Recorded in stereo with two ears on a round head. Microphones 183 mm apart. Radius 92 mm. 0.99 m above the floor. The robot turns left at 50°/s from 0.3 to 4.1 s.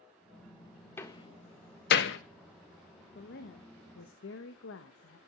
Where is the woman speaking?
130° left, 0.9 m; by 5.2 s 80° left, 0.9 m.